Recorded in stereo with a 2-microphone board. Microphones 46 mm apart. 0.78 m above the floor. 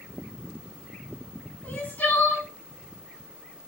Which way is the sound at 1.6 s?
35° left (ahead or behind).